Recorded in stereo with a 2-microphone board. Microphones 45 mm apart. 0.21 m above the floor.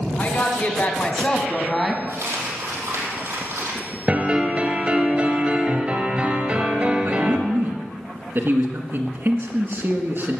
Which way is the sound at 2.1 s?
80° right.